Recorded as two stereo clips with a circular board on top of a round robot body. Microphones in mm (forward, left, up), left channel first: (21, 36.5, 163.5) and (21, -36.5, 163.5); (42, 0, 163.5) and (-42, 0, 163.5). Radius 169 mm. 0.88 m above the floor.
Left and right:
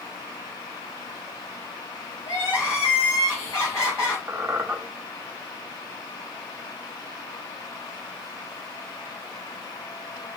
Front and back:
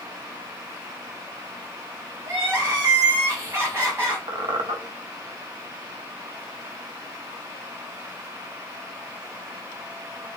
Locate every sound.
2.2 s crying: 125° left, 3.5 m
4.3 s a squeak: 160° right, 0.6 m